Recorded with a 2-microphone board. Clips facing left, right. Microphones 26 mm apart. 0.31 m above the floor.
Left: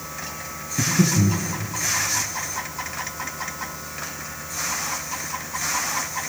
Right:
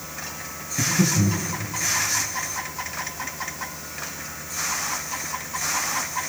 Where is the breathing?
30° left (ahead or behind), 5.5 m.